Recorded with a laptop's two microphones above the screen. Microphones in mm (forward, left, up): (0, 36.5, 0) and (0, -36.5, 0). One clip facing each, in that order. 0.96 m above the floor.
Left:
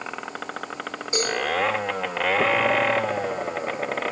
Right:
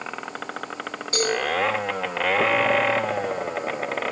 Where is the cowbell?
25° left (ahead or behind), 0.9 m.